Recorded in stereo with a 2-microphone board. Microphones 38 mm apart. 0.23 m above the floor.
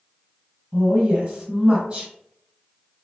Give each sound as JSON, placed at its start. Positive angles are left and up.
{"t": 0.7, "sound": "a woman speaking", "side_deg": -25, "distance_m": 1.6}